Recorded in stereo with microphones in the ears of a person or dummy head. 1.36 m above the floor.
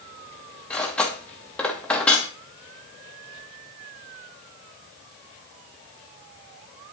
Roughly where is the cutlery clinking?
Centre.